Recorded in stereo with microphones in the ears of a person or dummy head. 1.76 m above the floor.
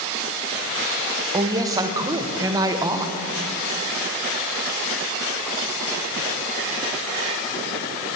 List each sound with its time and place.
1.3 s a woman speaking: 20° right (ahead or behind), 1.5 m